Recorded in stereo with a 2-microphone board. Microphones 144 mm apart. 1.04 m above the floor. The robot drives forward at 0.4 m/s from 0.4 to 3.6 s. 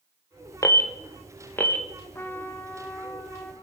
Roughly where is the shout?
I don't hear a shout.